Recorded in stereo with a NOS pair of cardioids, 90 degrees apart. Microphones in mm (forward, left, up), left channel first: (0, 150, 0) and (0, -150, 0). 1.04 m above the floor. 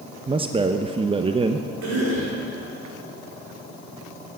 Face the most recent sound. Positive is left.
turn(degrees=-65)